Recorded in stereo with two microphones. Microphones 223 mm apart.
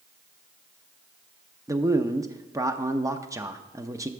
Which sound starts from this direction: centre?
A man speaking, at 1.7 s.